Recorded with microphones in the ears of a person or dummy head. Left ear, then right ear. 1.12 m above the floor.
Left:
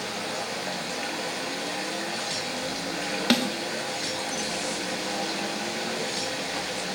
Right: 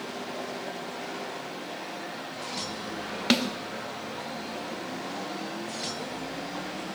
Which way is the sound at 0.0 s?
50° left (ahead or behind).